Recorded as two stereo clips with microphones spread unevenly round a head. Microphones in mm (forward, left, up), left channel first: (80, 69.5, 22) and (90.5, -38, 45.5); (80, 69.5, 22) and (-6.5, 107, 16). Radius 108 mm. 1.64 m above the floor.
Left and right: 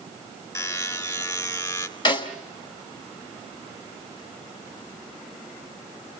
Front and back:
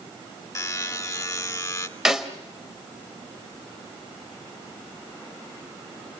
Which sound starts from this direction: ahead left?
A buzzer, at 0.6 s.